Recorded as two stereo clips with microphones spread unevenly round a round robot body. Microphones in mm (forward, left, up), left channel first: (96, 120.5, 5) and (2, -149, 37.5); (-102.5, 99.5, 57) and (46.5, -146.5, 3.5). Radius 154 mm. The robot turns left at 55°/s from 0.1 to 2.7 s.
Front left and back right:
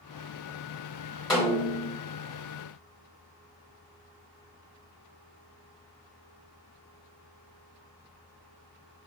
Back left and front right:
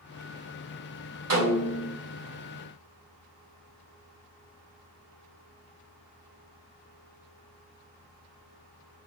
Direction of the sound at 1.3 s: 20° right.